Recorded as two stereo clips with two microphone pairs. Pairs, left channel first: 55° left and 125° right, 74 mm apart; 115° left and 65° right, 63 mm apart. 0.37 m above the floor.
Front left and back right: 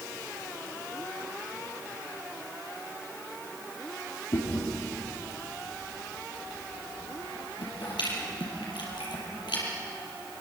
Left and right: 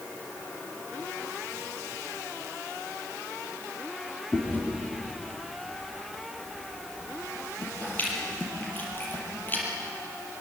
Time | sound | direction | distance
4.3 | chewing | 55° left | 6.5 m